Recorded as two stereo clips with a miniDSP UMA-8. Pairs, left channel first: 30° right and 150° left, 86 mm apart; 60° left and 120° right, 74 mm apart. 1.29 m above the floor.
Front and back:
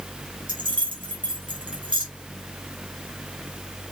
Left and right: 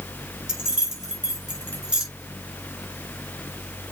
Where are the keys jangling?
160° left, 4.5 m.